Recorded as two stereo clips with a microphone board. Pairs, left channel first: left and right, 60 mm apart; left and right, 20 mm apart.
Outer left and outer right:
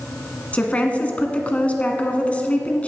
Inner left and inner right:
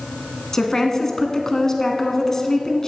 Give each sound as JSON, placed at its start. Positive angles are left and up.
{"t": 0.5, "sound": "a woman speaking", "side_deg": 20, "distance_m": 1.1}